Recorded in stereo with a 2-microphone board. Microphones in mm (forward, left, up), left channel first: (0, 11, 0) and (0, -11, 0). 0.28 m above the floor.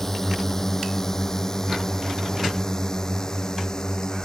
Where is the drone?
15° left (ahead or behind); by 4.2 s 25° left (ahead or behind).